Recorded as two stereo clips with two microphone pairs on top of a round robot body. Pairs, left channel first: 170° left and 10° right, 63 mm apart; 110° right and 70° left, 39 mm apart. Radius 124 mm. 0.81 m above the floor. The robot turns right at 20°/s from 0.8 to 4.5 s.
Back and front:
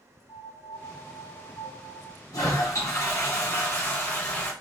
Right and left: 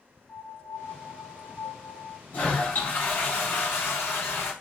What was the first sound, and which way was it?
A piano, 170° left.